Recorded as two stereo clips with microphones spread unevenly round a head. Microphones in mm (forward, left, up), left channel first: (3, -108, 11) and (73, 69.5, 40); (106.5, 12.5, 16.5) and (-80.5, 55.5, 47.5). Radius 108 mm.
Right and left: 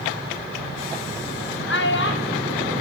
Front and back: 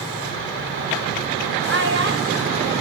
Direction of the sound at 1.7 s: 155° right.